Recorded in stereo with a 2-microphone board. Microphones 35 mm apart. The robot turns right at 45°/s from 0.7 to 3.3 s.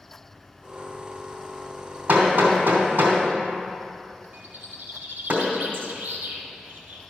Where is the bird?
75° right (ahead or behind), 1.5 m.